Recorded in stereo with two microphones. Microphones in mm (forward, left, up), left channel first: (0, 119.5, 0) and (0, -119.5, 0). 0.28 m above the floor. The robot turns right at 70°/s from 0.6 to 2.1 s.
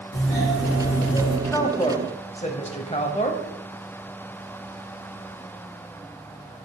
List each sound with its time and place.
0.1 s a doorbell: 75° left, 3.5 m; by 1.4 s 130° left, 3.5 m
1.5 s a woman speaking: 15° left, 1.0 m; by 3.4 s 60° left, 1.0 m